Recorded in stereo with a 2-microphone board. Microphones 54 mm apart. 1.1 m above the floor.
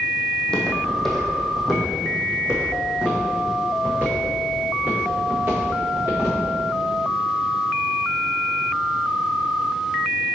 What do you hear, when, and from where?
0.3 s footsteps: 15° left (ahead or behind), 2 m; by 6.4 s 40° right (ahead or behind), 4.5 m